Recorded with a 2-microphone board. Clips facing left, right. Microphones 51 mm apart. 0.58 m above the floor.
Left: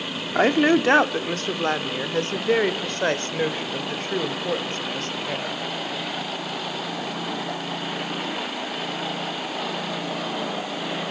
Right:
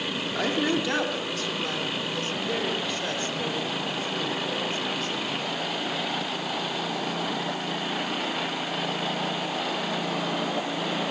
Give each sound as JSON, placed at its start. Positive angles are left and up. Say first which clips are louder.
{"t": 0.3, "sound": "a woman speaking", "louder": "left 9 dB", "side_deg": 40, "distance_m": 1.5}